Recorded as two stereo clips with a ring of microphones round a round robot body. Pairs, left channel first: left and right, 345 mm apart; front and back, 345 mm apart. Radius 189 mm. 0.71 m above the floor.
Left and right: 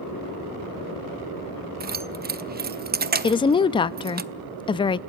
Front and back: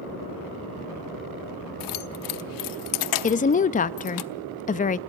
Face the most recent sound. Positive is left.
turn(degrees=35)